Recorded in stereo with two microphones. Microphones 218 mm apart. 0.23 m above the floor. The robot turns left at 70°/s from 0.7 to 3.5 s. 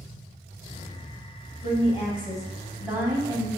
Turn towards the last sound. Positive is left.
turn(degrees=-55)